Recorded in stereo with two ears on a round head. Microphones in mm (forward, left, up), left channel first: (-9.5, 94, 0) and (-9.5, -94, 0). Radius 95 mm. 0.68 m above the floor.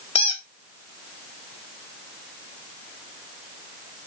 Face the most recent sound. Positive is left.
turn(degrees=25)  # may be behind; listen again after turning